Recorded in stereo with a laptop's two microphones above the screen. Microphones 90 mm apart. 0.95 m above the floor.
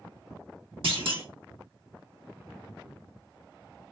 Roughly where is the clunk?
Right.